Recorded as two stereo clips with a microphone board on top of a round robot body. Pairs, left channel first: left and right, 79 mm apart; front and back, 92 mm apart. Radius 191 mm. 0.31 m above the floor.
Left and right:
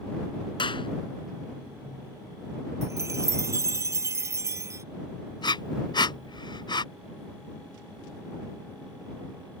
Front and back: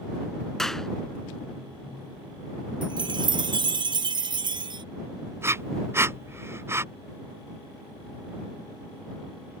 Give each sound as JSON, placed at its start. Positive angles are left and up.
{"t": 0.6, "sound": "a clap", "azimuth_deg": 85}
{"t": 2.8, "sound": "a chime", "azimuth_deg": -145}
{"t": 5.4, "sound": "breathing", "azimuth_deg": 115}